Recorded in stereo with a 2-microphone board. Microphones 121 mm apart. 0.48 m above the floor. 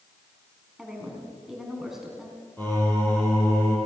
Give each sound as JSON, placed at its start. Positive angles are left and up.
{"t": 0.8, "sound": "a woman speaking", "side_deg": -5, "distance_m": 4.5}
{"t": 2.6, "sound": "singing", "side_deg": 15, "distance_m": 6.5}